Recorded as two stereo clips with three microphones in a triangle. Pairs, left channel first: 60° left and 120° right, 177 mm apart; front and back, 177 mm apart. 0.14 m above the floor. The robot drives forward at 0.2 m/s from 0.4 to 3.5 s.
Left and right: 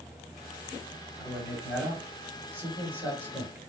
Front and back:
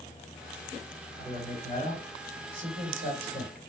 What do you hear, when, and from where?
1.2 s a man speaking: 160° left, 2.5 m; by 3.6 s 165° left, 3 m